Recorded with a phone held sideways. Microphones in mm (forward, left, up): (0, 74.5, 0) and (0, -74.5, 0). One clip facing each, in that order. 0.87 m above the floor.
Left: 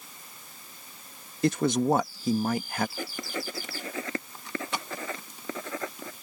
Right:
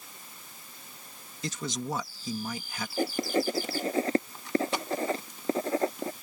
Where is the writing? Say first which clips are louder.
Right 8 dB; 35° right (ahead or behind).